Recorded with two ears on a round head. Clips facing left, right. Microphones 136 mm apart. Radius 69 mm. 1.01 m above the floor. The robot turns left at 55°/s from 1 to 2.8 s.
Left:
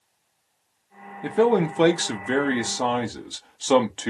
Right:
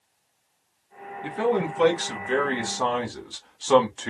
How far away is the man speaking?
About 1.3 m.